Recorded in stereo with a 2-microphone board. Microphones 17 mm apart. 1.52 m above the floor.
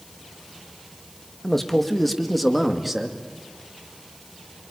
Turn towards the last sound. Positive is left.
turn(degrees=-10)  # may be behind; listen again after turning